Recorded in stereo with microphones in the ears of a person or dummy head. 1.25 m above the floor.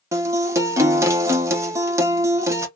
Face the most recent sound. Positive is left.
turn(degrees=-15)  # may be behind; listen again after turning